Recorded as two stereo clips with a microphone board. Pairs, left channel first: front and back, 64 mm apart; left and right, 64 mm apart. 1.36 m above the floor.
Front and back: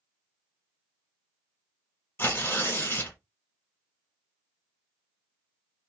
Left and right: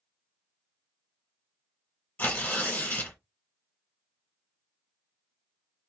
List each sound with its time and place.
2.2 s tearing paper: 40° left, 1.7 m